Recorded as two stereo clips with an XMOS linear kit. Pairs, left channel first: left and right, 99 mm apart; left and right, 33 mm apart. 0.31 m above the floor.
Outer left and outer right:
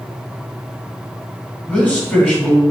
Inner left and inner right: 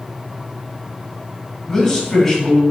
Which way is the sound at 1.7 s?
15° left (ahead or behind).